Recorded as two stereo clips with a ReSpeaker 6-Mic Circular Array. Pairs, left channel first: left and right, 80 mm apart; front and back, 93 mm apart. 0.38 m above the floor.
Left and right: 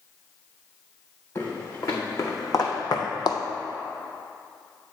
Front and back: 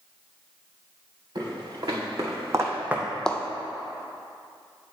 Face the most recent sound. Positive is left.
turn(degrees=70)